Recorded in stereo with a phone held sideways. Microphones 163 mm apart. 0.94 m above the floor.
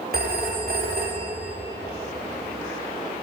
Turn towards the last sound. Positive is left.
turn(degrees=-75)  # may be behind; listen again after turning